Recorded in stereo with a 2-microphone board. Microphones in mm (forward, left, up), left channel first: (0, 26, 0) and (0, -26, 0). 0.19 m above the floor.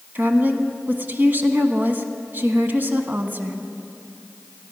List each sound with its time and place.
0.1 s a woman speaking: 40° right (ahead or behind), 1.3 m